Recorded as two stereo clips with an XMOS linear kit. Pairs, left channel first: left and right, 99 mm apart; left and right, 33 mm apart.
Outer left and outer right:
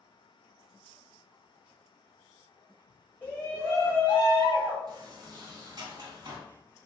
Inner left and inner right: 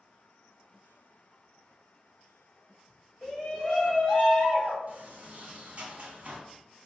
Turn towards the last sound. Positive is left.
turn(degrees=-45)  # may be behind; listen again after turning